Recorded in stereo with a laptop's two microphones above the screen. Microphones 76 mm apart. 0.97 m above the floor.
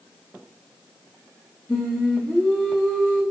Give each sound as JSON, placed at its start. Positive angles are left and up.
{"t": 1.7, "sound": "singing", "side_deg": 15, "distance_m": 0.7}